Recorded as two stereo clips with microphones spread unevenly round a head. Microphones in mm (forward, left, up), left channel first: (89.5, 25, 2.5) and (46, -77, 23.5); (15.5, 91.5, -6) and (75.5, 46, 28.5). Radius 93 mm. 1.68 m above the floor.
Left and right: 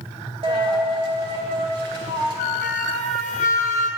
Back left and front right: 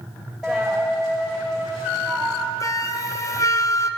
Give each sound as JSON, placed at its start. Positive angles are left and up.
{"t": 0.4, "sound": "a dropped coin", "azimuth_deg": -110, "distance_m": 2.0}
{"t": 2.6, "sound": "a flute", "azimuth_deg": 90, "distance_m": 0.7}